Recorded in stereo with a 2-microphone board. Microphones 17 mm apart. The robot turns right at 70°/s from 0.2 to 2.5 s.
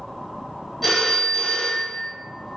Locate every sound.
0.8 s a phone ringing: 5° left, 1.1 m; by 2.1 s 95° left, 1.1 m